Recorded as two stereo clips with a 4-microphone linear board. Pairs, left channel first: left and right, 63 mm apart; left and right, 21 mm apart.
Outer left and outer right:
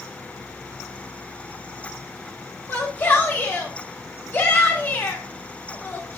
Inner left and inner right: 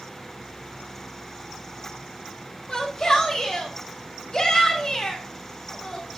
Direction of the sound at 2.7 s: 35° left (ahead or behind).